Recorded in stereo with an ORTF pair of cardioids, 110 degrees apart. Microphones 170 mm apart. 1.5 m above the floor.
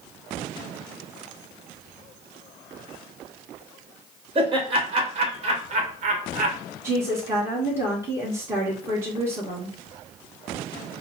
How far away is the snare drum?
I don't hear a snare drum.